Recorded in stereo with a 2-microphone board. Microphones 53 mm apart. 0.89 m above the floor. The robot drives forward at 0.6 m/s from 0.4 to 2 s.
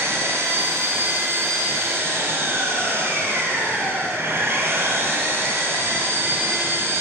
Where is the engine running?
60° right (ahead or behind), 7 m; by 7.0 s 55° right (ahead or behind), 7.5 m.